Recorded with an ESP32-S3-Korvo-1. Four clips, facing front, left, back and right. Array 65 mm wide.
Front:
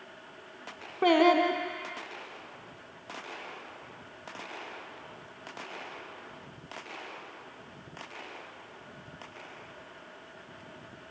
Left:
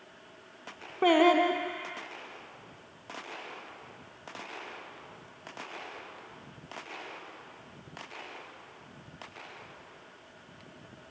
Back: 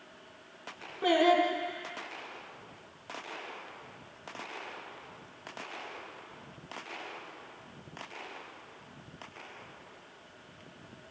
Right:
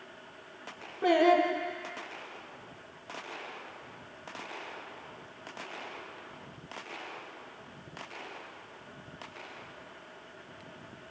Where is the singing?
55° left, 3.5 m.